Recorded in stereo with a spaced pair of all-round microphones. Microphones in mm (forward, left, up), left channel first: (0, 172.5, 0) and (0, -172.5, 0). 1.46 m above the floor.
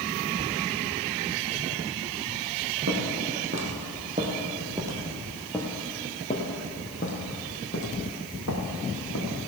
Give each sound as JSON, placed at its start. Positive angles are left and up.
{"t": 2.9, "sound": "footsteps", "side_deg": -45, "distance_m": 3.0}